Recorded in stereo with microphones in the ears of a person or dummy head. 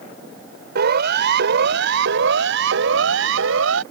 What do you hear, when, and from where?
0.8 s a siren: 65° right (ahead or behind); by 3.8 s 80° right